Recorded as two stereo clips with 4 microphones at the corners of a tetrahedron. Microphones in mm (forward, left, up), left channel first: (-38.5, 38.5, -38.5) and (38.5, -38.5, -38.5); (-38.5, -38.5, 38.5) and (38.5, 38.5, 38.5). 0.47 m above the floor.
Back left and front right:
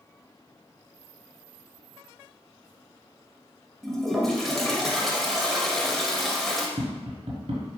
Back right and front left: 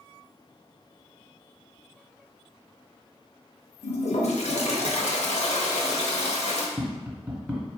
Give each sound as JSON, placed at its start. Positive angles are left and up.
{"t": 3.8, "sound": "a toilet flushing", "azimuth_deg": -140, "distance_m": 0.6}
{"t": 6.8, "sound": "tapping", "azimuth_deg": -30, "distance_m": 1.0}